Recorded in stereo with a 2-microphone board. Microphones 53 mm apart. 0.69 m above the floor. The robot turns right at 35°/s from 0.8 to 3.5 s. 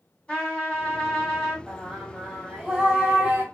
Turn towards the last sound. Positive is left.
turn(degrees=-120)